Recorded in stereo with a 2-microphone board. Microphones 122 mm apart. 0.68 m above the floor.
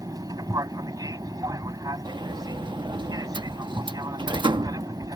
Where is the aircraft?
30° right (ahead or behind).